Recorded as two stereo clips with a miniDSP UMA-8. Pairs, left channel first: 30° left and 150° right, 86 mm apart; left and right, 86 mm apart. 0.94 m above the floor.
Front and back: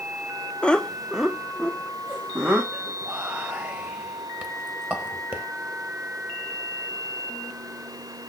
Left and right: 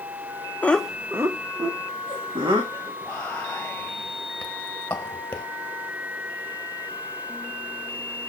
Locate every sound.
0.6 s laughter: 80° left, 0.6 m; by 2.9 s 75° right, 1.9 m
3.0 s whispering: 155° left, 1.1 m